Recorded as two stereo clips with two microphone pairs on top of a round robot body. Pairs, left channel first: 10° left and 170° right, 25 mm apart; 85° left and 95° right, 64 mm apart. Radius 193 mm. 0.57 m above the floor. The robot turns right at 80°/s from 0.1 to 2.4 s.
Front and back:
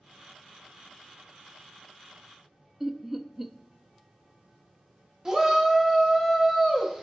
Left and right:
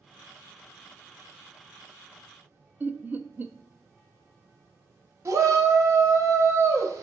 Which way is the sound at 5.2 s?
105° right.